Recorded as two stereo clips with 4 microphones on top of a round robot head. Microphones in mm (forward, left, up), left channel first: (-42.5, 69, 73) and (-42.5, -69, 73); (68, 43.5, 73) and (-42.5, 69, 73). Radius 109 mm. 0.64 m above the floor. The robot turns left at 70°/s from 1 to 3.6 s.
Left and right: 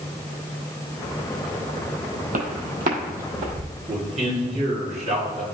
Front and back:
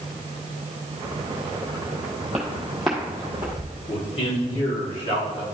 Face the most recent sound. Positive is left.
turn(degrees=-55)